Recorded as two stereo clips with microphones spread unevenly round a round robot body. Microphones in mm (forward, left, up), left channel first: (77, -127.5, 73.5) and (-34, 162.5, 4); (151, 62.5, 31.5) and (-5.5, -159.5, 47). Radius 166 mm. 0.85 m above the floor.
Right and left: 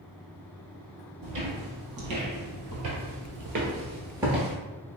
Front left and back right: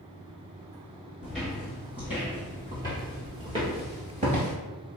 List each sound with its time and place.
1.2 s footsteps: 145° left, 1.9 m; by 4.5 s 125° right, 0.9 m